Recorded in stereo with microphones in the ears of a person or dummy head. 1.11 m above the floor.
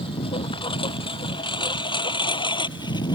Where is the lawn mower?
25° left (ahead or behind); by 3.1 s 20° left (ahead or behind).